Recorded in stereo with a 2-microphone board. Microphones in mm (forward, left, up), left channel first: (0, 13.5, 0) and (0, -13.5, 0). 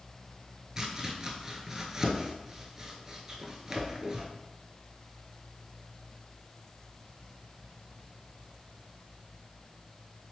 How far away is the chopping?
About 0.6 m.